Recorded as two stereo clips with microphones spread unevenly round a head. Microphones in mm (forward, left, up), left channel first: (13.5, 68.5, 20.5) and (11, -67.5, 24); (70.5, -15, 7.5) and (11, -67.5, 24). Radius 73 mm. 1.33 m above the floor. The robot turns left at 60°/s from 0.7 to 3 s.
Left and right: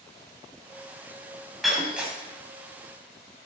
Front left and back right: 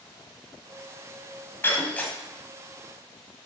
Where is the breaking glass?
5° right, 1.2 m; by 2.2 s 35° right, 1.2 m.